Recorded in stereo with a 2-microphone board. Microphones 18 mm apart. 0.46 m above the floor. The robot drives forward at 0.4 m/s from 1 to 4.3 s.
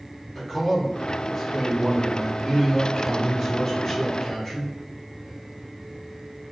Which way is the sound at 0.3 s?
25° left (ahead or behind).